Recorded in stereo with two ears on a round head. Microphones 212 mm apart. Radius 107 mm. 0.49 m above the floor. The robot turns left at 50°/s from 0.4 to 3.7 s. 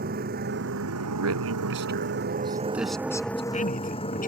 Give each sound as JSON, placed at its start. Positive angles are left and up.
{"t": 0.0, "sound": "a motorcycle", "azimuth_deg": -40}
{"t": 1.1, "sound": "a man speaking", "side_deg": -80}